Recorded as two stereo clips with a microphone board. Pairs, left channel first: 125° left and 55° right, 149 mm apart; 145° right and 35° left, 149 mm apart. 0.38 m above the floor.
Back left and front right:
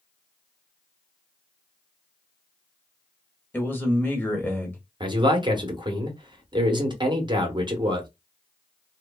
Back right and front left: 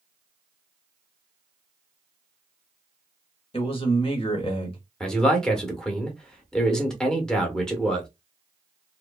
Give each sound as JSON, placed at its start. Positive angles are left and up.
{"t": 3.5, "sound": "a man speaking", "azimuth_deg": -165, "distance_m": 1.0}
{"t": 5.0, "sound": "a man speaking", "azimuth_deg": -65, "distance_m": 0.8}